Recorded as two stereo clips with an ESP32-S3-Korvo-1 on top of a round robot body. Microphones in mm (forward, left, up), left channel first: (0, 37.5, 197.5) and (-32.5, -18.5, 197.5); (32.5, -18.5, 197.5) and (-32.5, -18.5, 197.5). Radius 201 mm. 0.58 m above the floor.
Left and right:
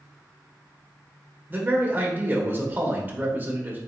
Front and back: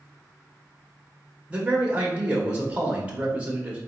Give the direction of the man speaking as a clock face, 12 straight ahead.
4 o'clock.